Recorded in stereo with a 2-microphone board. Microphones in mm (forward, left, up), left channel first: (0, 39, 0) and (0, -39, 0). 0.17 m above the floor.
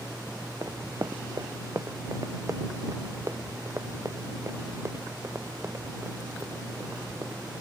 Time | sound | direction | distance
0.6 | running footsteps | 50° right (ahead or behind) | ?